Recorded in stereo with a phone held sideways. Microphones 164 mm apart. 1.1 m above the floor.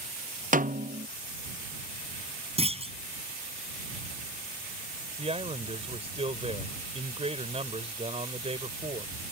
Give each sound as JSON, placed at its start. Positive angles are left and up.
{"t": 0.5, "sound": "a snare drum", "side_deg": -55}
{"t": 2.6, "sound": "a clunk", "side_deg": -40}
{"t": 5.2, "sound": "a man speaking", "side_deg": -40}